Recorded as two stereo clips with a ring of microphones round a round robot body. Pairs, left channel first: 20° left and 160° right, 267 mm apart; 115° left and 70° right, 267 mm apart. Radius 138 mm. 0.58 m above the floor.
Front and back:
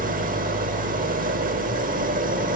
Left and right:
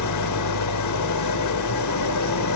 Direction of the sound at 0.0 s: 140° left.